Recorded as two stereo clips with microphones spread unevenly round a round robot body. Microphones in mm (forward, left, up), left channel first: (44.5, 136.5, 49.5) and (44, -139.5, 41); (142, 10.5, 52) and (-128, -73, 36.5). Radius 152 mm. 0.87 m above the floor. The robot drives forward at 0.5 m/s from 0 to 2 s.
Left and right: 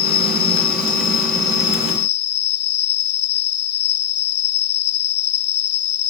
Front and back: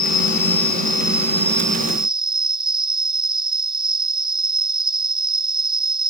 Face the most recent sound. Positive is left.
turn(degrees=125)